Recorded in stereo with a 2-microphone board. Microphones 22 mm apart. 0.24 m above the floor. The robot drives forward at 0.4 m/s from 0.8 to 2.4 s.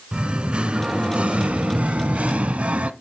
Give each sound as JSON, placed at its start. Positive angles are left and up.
{"t": 0.1, "sound": "singing", "side_deg": -45, "distance_m": 0.7}